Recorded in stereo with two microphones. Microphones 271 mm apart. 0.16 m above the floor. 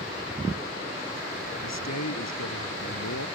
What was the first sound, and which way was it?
A man speaking, 80° left.